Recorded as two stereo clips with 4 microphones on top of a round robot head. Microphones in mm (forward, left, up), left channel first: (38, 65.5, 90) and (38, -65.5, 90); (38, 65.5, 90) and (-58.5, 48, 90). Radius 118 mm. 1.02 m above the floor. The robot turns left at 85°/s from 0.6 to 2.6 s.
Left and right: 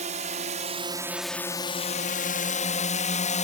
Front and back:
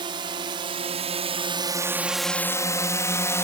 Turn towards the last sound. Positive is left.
turn(degrees=70)